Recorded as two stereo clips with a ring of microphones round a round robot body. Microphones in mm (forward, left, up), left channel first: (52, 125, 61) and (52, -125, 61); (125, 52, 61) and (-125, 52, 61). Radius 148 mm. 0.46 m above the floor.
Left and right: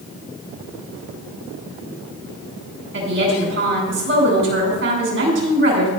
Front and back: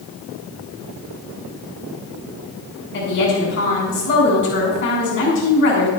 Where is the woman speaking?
50° right, 5 m.